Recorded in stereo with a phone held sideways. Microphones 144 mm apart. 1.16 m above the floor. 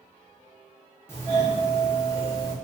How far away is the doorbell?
About 0.8 m.